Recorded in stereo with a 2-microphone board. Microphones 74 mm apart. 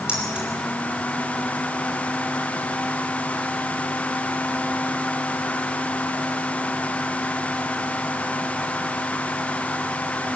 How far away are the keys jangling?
About 5 m.